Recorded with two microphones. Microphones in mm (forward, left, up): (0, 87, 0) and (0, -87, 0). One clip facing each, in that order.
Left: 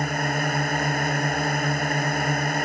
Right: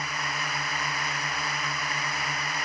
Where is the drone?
50° left (ahead or behind).